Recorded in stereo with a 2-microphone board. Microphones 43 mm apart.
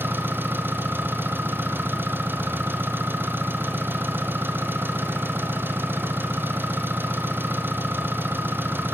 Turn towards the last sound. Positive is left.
turn(degrees=-60)  # may be behind; listen again after turning